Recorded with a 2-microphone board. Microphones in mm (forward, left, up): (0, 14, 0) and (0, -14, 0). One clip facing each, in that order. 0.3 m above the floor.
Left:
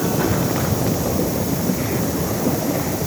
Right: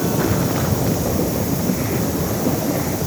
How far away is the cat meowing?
No cat meowing in this recording.